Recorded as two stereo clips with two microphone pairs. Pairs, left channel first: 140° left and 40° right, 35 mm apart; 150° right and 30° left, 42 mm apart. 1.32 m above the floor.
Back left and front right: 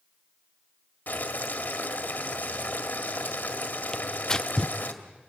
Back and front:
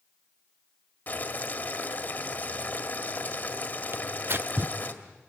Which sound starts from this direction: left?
Tearing paper, at 3.9 s.